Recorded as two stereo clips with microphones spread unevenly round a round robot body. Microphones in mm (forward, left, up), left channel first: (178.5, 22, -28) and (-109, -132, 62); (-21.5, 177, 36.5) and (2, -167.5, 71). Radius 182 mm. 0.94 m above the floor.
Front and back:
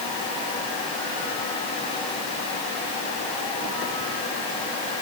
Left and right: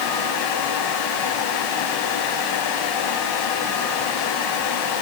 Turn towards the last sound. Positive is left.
No sound to turn to.